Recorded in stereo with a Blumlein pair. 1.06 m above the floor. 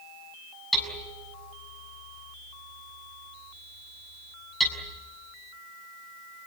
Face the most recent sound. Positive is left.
turn(degrees=5)